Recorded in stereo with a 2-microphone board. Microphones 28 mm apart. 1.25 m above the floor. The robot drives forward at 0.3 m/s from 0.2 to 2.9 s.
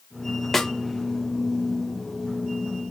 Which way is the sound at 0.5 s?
10° left (ahead or behind).